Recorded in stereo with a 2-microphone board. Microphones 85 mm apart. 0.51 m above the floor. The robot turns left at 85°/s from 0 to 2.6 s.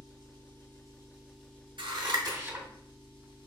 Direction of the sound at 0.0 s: 60° right.